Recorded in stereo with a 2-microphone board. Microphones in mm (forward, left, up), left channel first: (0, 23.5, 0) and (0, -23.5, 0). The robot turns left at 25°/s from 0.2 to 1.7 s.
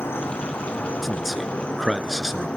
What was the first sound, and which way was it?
An insect, 60° left.